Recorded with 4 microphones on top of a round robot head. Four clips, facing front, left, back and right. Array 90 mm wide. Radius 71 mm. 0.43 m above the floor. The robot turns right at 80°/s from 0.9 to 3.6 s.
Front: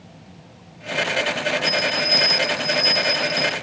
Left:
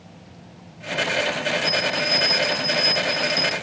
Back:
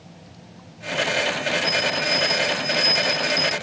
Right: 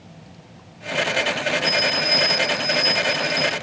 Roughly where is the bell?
Ahead right.